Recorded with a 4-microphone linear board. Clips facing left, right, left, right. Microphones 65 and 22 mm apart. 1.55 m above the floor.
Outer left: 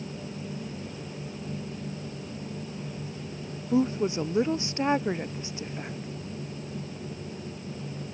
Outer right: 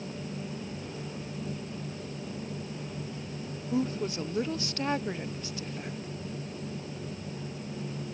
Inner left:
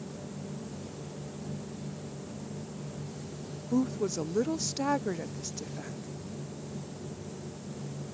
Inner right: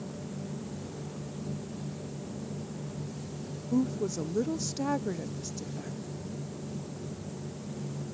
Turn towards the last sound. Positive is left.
turn(degrees=20)  # may be behind; listen again after turning